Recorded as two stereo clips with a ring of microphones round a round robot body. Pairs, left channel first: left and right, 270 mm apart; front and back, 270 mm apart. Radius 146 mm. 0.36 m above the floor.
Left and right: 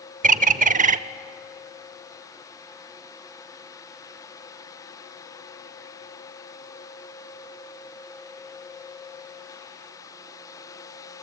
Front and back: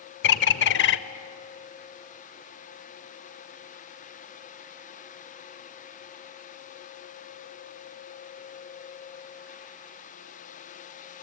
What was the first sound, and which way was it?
A bird, 35° right.